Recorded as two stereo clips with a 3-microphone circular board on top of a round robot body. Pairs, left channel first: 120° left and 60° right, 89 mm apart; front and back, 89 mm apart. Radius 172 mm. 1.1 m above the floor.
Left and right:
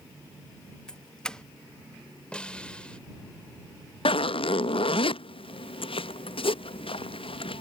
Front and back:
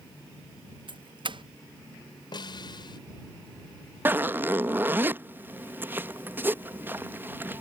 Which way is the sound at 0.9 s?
160° right.